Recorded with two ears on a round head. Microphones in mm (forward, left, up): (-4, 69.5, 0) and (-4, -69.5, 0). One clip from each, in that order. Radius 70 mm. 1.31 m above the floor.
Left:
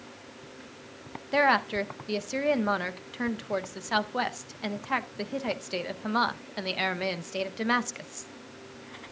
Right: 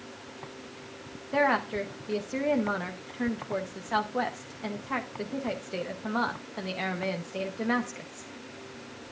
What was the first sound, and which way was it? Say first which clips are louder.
A woman speaking: left 2 dB; 75° left (ahead or behind).